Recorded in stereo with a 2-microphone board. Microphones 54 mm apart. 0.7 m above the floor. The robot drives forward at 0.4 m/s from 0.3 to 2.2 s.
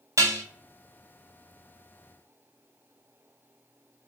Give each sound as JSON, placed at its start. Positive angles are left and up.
{"t": 0.2, "sound": "dishes clattering", "side_deg": -70, "distance_m": 0.8}